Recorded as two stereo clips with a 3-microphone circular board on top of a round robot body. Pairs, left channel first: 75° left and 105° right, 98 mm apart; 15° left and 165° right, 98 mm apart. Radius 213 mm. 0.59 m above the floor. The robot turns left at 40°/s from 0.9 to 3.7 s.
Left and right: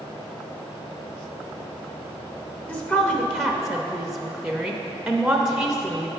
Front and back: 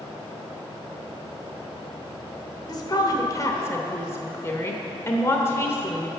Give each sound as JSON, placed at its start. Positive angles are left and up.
{"t": 2.7, "sound": "a woman speaking", "azimuth_deg": 15, "distance_m": 0.9}